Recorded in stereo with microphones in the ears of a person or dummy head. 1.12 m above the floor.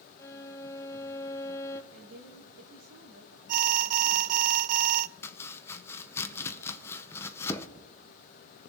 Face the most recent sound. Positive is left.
turn(degrees=10)  # may be behind; listen again after turning